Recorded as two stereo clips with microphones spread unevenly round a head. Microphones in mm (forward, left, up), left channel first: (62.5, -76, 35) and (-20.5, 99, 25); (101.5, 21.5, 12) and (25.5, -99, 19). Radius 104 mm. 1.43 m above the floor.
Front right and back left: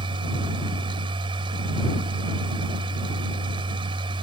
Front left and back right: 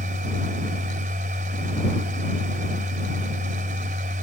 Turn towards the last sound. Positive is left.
turn(degrees=-175)